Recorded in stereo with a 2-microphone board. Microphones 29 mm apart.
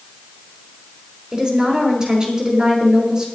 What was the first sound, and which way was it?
A woman speaking, 30° right (ahead or behind).